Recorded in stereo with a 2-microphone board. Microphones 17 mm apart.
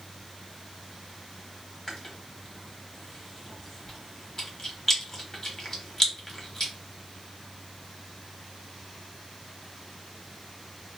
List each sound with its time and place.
1.9 s chewing: 20° left (ahead or behind), 0.9 m